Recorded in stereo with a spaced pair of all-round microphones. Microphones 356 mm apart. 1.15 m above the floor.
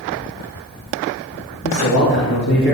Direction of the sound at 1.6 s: 75° left (ahead or behind).